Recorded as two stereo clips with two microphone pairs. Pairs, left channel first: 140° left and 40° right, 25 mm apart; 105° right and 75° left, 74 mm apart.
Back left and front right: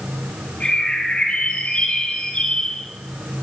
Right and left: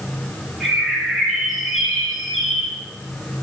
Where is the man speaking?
I don't hear a man speaking.